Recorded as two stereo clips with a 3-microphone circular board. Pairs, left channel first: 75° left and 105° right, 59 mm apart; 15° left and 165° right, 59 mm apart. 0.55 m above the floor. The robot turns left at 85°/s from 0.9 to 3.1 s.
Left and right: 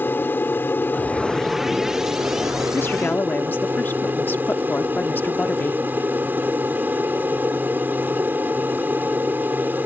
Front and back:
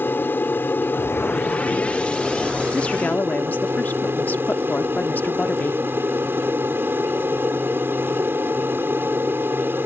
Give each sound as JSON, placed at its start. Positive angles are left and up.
{"t": 0.0, "sound": "an aircraft", "azimuth_deg": 45}
{"t": 2.7, "sound": "a woman speaking", "azimuth_deg": 80}